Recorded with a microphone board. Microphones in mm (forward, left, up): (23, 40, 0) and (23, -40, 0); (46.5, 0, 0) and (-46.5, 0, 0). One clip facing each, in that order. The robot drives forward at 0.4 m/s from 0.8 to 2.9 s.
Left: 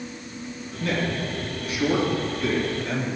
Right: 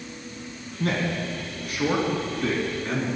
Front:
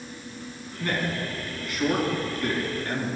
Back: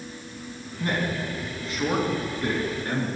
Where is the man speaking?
115° right, 3 m; by 3.1 s 130° right, 3 m.